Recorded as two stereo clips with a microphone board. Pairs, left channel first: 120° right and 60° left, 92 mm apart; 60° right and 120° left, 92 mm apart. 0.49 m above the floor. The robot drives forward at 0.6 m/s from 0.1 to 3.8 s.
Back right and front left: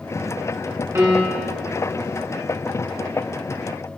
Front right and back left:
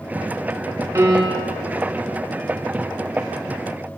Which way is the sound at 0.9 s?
95° left.